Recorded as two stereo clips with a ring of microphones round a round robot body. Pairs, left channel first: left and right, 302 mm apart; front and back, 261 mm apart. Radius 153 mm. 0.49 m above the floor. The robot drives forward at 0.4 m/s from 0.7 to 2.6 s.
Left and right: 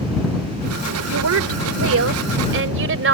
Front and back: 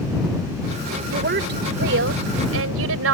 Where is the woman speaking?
120° right; by 3.1 s 140° right.